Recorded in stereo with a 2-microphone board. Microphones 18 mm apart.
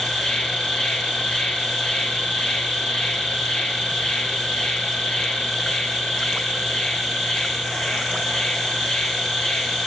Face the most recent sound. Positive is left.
turn(degrees=80)